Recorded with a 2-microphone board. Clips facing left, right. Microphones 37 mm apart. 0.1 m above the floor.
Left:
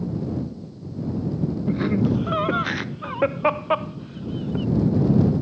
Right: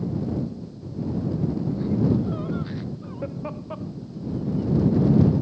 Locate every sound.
1.7 s laughter: 75° left (ahead or behind); by 4.7 s 80° left